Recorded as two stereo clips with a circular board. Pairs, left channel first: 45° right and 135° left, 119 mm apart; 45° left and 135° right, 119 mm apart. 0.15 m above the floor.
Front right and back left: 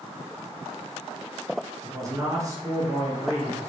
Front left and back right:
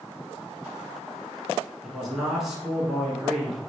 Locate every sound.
1.8 s a man speaking: 140° left, 1.3 m